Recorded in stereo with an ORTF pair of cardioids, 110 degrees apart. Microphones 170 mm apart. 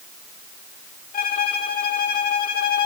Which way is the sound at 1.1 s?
60° left.